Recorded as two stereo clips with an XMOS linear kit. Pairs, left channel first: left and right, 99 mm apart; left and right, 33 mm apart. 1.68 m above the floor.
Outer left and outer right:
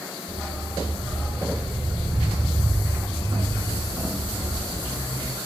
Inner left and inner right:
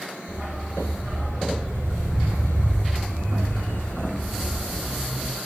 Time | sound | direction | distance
0.3 | a dog barking | centre (ahead or behind) | 6.5 m